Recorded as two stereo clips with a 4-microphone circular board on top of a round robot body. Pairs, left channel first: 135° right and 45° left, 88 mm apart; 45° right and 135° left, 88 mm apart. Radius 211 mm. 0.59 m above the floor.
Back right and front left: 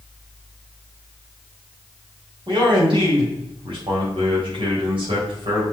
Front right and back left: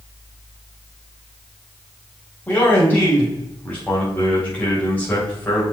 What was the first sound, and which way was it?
A man speaking, 25° left.